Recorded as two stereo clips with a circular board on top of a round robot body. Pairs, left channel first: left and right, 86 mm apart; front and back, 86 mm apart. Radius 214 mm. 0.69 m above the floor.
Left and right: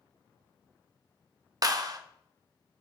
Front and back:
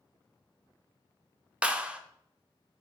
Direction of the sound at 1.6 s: 110° right.